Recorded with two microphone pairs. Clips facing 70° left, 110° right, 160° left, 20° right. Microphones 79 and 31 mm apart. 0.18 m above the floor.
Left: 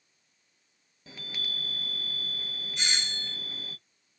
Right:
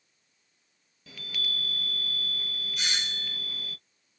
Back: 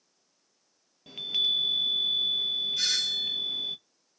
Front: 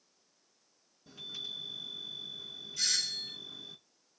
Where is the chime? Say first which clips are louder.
Right 2 dB, back 14 dB; 140° left, 0.7 m.